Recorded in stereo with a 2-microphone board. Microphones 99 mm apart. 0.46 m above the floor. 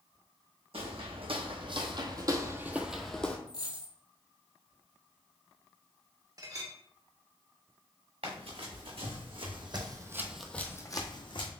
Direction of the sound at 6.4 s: 40° right (ahead or behind).